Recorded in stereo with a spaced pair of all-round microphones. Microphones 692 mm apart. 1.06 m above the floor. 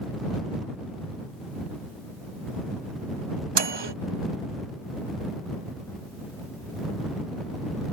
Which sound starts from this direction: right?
A microwave, at 3.5 s.